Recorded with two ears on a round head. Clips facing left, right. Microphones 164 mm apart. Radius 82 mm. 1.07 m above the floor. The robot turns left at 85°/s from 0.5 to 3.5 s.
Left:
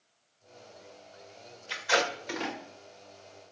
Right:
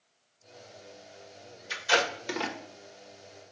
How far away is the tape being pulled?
About 1.1 m.